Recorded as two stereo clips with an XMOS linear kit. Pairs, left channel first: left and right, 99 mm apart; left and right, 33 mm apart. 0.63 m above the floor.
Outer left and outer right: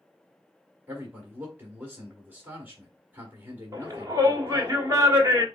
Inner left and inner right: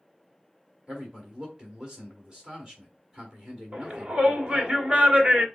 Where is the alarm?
I don't hear an alarm.